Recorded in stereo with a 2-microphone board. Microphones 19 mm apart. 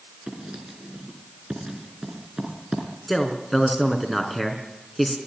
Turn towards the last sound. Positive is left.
turn(degrees=0)  # may be behind; listen again after turning